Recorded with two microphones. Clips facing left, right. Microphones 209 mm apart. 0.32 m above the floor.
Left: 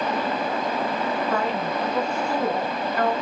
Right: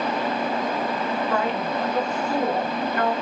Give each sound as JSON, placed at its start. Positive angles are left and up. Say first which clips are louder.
{"t": 1.3, "sound": "a woman speaking", "louder": "right 1 dB", "side_deg": -50, "distance_m": 3.0}